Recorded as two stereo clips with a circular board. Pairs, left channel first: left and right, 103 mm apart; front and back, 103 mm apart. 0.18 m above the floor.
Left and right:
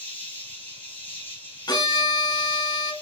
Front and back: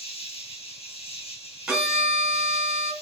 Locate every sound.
0.0 s an insect: 15° left, 2.5 m
1.7 s a violin: 100° left, 1.4 m